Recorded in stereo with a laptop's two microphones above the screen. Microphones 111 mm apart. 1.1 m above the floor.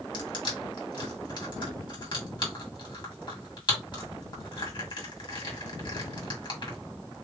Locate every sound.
0.1 s crushing: 45° left (ahead or behind), 1.9 m